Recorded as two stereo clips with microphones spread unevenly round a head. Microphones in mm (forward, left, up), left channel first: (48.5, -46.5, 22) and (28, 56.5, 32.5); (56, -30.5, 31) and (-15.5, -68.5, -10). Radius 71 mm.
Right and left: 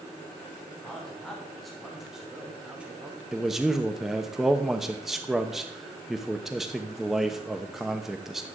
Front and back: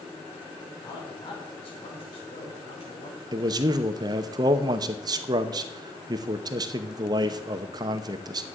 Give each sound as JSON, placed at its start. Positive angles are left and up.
{"t": 0.8, "sound": "a man speaking", "azimuth_deg": 5, "distance_m": 3.5}
{"t": 3.3, "sound": "a man speaking", "azimuth_deg": -170, "distance_m": 0.8}